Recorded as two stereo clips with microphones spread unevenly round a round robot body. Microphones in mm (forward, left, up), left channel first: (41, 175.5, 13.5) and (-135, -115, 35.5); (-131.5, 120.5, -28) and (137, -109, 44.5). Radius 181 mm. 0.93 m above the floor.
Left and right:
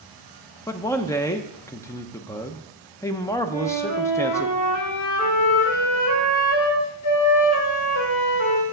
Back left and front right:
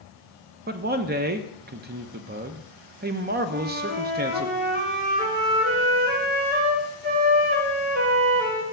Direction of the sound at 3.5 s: 25° left.